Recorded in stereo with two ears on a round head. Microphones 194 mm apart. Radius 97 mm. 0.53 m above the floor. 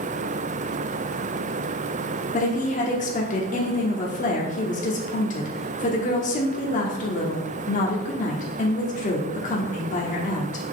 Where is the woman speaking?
35° left (ahead or behind), 1.1 m.